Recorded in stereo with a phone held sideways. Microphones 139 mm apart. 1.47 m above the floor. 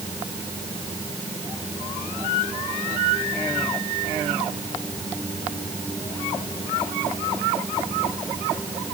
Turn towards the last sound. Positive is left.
No sound to turn to.